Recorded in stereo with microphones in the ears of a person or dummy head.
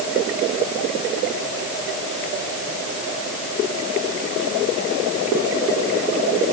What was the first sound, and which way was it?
Only background noise.